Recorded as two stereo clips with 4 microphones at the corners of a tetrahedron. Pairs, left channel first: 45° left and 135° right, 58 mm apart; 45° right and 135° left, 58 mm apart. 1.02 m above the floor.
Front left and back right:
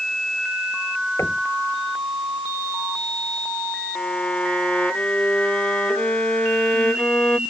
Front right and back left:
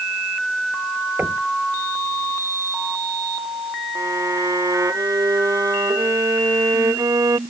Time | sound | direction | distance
1.2 | knocking | 80° left | ?
4.0 | a violin | 115° left | ?